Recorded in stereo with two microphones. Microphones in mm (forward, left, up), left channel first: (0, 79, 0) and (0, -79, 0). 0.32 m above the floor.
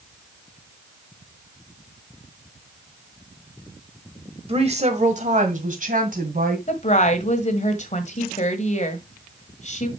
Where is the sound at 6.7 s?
50° left (ahead or behind), 1.5 m.